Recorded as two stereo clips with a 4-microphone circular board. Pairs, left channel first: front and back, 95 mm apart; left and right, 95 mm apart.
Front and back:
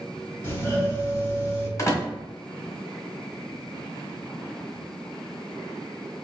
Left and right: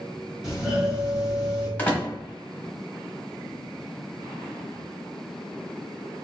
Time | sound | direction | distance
0.4 | a doorbell | 15° right | 1.7 m
1.8 | a door slam | 30° left | 1.0 m